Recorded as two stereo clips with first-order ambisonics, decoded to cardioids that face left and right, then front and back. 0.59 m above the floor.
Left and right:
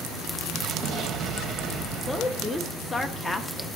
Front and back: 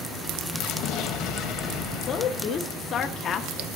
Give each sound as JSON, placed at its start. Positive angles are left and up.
{"t": 0.5, "sound": "an explosion", "azimuth_deg": -40, "distance_m": 1.6}
{"t": 2.0, "sound": "a woman speaking", "azimuth_deg": 15, "distance_m": 1.1}